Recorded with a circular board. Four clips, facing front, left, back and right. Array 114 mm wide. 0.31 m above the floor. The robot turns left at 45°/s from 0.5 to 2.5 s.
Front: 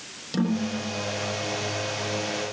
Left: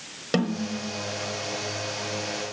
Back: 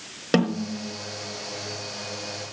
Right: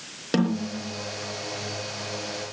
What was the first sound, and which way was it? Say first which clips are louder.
A snare drum: right 1 dB, back 2 dB; straight behind.